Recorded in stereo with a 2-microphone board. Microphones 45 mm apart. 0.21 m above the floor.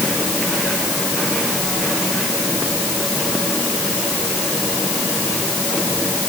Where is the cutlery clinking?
No cutlery clinking in this recording.